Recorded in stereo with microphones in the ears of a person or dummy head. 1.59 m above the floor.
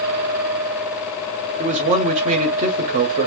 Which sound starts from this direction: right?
A man speaking, at 1.6 s.